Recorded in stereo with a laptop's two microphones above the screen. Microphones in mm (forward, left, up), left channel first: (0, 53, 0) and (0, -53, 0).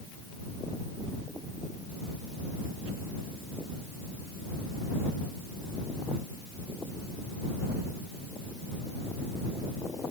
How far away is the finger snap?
I don't hear a finger snap.